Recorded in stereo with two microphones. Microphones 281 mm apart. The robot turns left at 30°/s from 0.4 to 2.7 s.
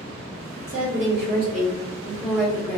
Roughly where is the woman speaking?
Behind right.